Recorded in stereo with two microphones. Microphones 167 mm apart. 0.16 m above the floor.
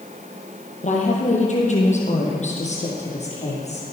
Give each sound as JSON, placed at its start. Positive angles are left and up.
{"t": 0.8, "sound": "a woman speaking", "side_deg": 45, "distance_m": 4.0}